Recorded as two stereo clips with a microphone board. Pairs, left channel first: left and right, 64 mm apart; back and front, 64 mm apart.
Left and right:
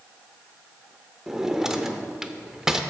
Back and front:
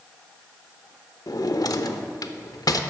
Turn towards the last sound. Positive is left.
turn(degrees=-170)